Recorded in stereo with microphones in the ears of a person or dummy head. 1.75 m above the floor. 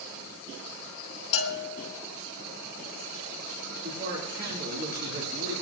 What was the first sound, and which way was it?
A bell, 60° left (ahead or behind).